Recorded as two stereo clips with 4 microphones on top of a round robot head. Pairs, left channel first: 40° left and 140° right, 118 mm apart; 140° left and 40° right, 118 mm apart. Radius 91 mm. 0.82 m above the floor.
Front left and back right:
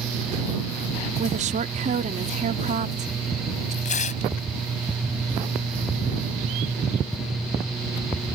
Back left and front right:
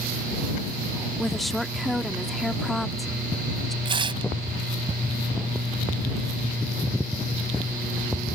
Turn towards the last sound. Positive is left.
turn(degrees=15)